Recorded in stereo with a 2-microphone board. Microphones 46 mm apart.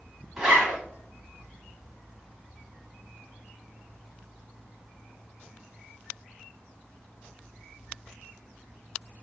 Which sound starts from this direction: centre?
A zipper, at 0.4 s.